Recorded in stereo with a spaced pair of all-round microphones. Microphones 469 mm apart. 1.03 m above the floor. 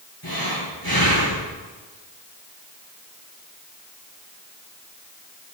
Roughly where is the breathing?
Left.